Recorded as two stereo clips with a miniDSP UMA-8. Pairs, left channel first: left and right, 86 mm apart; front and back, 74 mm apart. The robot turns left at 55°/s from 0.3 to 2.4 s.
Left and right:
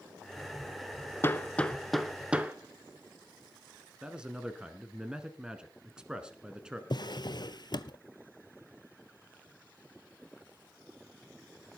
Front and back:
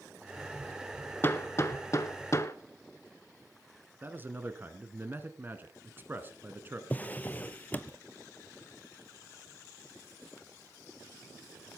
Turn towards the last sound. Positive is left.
turn(degrees=65)